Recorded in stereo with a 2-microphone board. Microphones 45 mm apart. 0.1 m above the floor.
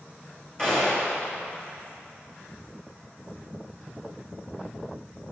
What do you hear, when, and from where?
0.6 s a gunshot: 20° left (ahead or behind), 2.5 m